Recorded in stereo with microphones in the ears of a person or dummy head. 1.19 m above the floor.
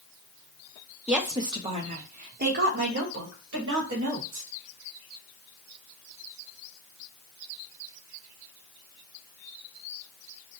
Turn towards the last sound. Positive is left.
turn(degrees=-65)  # may be behind; listen again after turning